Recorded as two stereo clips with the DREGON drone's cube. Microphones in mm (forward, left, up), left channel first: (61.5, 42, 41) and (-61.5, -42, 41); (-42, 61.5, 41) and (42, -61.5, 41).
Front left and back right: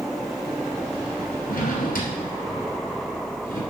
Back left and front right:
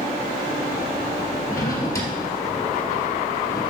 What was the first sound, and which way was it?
A drawer, 55° left.